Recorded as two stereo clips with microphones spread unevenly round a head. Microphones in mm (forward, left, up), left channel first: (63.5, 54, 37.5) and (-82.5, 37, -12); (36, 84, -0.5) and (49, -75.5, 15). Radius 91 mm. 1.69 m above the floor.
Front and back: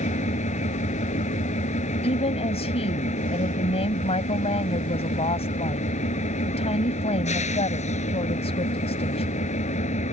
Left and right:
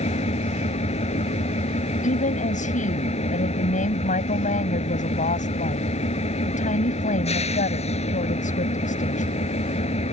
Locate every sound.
0.0 s an engine running: 45° left
2.0 s a woman speaking: 55° left